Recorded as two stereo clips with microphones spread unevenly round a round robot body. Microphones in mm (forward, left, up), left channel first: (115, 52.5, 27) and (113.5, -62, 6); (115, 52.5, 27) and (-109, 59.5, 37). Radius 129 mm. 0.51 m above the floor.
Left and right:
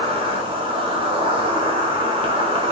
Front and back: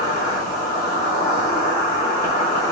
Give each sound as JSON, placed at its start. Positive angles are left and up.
{"t": 0.0, "sound": "an insect", "azimuth_deg": -75, "distance_m": 1.0}